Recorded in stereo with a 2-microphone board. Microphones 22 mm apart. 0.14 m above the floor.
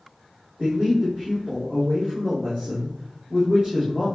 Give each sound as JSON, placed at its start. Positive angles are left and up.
{"t": 0.6, "sound": "a man speaking", "side_deg": -45, "distance_m": 3.5}